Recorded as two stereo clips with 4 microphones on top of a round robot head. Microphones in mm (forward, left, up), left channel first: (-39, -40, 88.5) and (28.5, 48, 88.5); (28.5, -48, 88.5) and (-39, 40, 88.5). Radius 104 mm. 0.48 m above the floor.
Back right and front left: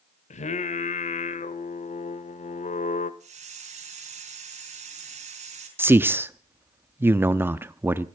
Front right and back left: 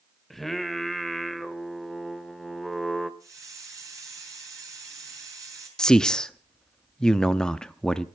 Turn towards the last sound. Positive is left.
turn(degrees=20)